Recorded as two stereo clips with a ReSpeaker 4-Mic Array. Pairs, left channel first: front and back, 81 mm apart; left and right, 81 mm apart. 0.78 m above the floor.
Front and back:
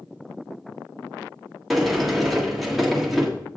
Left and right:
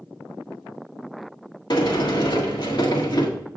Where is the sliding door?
90° left, 1.6 m.